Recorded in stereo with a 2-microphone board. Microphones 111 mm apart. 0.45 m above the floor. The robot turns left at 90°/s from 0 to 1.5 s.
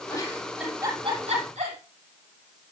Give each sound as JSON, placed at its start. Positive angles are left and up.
{"t": 0.1, "sound": "a giggle", "side_deg": 35, "distance_m": 8.5}